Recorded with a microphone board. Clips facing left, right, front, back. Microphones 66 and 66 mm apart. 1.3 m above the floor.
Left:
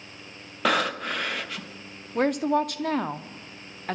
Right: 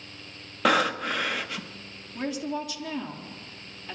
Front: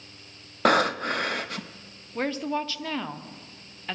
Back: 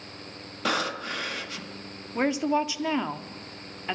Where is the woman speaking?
105° left, 0.6 m.